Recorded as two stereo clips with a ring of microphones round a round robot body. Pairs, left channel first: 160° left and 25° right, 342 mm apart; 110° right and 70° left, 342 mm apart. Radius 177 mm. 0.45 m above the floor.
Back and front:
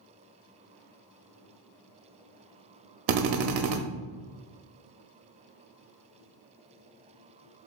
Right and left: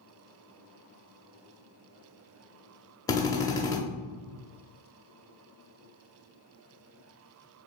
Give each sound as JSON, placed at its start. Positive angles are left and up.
{"t": 3.1, "sound": "a drill", "azimuth_deg": -35, "distance_m": 0.5}